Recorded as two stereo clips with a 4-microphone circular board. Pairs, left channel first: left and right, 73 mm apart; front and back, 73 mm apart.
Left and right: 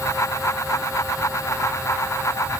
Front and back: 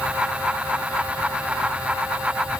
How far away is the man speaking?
I don't hear a man speaking.